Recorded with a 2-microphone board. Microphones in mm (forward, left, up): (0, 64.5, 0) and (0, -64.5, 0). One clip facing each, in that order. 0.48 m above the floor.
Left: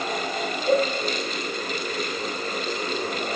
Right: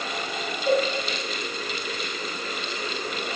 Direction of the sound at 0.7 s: 50° right (ahead or behind).